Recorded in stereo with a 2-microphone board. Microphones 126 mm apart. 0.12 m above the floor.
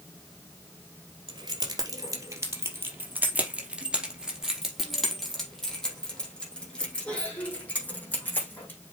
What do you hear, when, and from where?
1.3 s keys jangling: 35° right (ahead or behind), 2 m; by 8.8 s 15° left (ahead or behind), 5 m